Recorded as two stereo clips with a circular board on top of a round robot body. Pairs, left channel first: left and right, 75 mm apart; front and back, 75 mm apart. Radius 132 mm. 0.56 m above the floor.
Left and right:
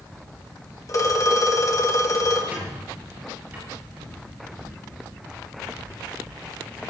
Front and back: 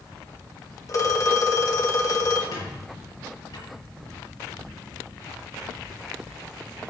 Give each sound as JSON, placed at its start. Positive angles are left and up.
{"t": 0.9, "sound": "a phone ringing", "azimuth_deg": 45, "distance_m": 2.0}
{"t": 2.5, "sound": "a squeak", "azimuth_deg": -25, "distance_m": 6.0}